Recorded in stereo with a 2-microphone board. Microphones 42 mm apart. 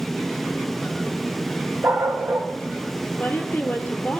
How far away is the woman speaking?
About 1.9 m.